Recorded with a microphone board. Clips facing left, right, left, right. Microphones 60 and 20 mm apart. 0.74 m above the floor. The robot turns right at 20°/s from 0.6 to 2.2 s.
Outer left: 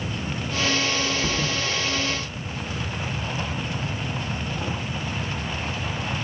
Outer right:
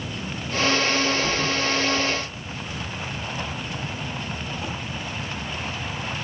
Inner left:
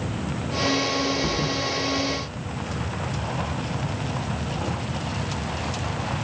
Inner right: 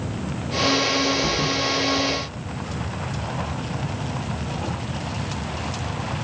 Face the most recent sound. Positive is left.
turn(degrees=40)  # may be behind; listen again after turning